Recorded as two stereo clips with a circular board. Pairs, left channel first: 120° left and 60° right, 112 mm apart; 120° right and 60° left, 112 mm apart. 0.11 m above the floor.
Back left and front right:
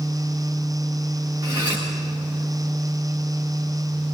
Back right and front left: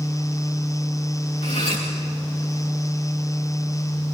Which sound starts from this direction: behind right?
Cutlery clinking, at 1.4 s.